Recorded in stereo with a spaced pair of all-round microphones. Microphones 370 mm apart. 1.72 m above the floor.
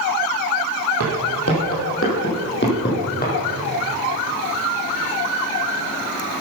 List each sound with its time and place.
1.0 s footsteps: 45° left (ahead or behind), 3 m; by 3.3 s 25° left (ahead or behind), 3 m